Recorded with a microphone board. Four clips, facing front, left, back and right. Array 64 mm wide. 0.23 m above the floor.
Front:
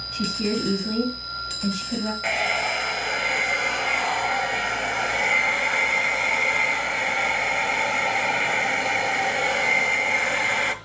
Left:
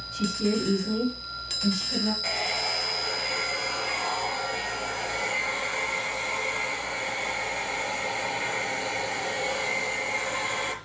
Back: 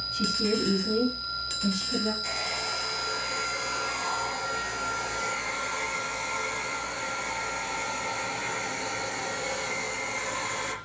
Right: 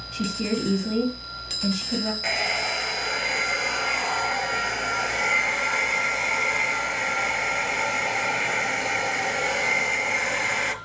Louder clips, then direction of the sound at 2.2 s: Right 4 dB, front 9 dB; 30° right.